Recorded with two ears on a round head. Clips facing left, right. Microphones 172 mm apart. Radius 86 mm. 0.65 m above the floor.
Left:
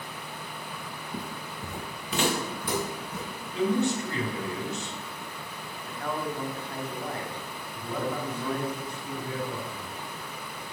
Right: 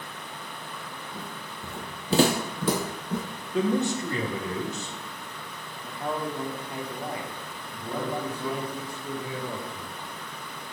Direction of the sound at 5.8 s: 10° right (ahead or behind).